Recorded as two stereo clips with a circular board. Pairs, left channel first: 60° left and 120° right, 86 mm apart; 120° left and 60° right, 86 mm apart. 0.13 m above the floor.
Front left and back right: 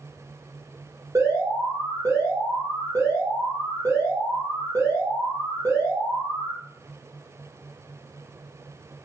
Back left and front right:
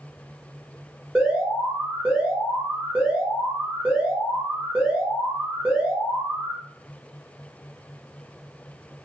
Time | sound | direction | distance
1.1 | an alarm | 130° right | 1.4 m